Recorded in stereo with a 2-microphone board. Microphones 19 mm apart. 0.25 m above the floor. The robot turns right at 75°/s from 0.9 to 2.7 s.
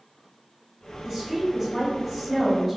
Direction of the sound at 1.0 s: 20° right (ahead or behind).